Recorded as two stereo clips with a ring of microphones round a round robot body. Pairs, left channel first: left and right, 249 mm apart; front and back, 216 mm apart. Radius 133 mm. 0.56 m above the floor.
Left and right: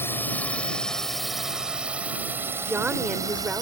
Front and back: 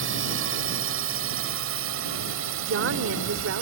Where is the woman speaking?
175° right.